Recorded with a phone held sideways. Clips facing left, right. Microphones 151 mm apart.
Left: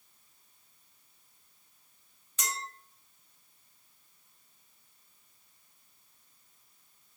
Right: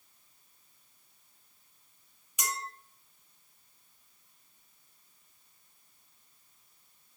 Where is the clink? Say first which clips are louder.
Right 1 dB; 10° right (ahead or behind), 0.8 m.